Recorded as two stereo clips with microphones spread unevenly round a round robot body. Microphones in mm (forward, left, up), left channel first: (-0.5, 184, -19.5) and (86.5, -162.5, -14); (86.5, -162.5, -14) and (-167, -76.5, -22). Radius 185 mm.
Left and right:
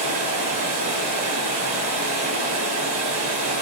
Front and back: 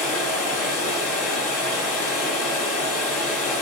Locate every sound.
0.0 s running water: 30° right, 1.5 m